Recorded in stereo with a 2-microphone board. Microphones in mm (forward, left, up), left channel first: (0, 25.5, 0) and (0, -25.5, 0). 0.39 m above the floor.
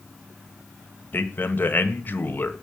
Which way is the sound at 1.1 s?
40° left (ahead or behind).